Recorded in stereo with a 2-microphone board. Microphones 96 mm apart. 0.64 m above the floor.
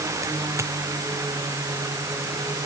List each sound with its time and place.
0.6 s a dropped coin: 30° right (ahead or behind)